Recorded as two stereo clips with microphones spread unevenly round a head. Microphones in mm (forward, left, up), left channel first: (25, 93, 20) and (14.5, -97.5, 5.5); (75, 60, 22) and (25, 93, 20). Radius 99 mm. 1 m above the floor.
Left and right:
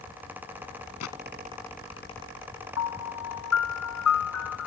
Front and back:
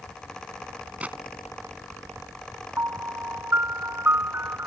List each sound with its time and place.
1.0 s a gunshot: 80° left
2.8 s a piano: 100° left